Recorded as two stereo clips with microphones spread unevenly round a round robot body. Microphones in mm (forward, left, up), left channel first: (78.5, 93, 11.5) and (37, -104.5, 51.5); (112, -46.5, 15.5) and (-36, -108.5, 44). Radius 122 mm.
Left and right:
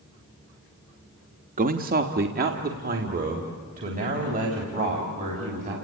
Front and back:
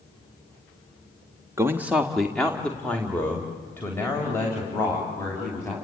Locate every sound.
1.6 s a man speaking: 85° right, 1.0 m; by 5.7 s 50° right, 5.5 m